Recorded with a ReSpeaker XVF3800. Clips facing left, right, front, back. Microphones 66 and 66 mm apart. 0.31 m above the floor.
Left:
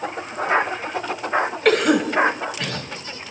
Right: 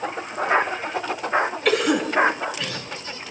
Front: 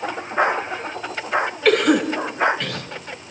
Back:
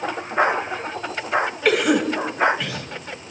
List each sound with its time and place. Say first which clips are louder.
1.6 s a cough: left 6 dB, front 3 dB; 100° left, 2 m